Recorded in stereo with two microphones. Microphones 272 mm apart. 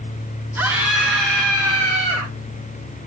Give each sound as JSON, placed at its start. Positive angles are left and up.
{"t": 0.6, "sound": "a scream", "side_deg": -5, "distance_m": 4.5}